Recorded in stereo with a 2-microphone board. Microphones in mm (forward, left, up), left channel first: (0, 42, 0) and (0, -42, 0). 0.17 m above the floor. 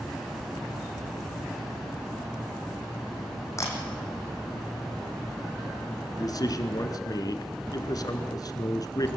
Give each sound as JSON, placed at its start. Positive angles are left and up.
{"t": 3.6, "sound": "a camera shutter", "side_deg": 35, "distance_m": 4.0}
{"t": 6.1, "sound": "a man speaking", "side_deg": 50, "distance_m": 1.6}